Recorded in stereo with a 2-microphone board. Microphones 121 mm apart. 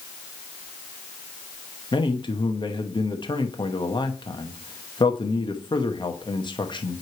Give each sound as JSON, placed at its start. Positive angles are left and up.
{"t": 1.9, "sound": "a man speaking", "side_deg": 40, "distance_m": 0.9}